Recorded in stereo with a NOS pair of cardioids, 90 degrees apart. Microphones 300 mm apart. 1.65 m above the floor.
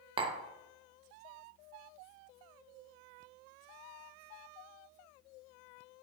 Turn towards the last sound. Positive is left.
turn(degrees=-15)